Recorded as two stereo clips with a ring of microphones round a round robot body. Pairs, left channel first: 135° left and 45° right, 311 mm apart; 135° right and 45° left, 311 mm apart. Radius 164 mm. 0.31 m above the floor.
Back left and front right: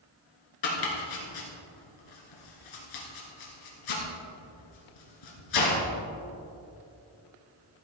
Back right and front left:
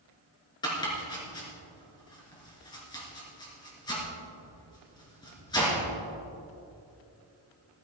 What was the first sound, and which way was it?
Chopping, 150° left.